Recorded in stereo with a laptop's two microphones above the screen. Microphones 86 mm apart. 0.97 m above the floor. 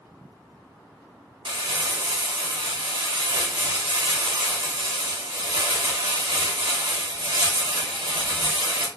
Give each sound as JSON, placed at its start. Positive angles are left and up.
{"t": 1.4, "sound": "crumpling", "side_deg": -65, "distance_m": 0.9}